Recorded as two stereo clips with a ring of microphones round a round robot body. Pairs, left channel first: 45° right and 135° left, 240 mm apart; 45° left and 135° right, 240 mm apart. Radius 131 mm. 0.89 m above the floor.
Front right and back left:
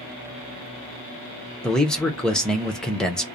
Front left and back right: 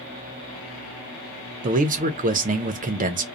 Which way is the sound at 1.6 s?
130° right.